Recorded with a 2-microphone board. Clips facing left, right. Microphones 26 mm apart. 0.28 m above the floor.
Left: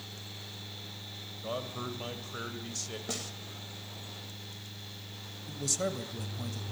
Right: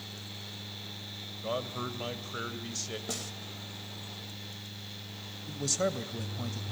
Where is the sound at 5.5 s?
15° right (ahead or behind), 1.3 m.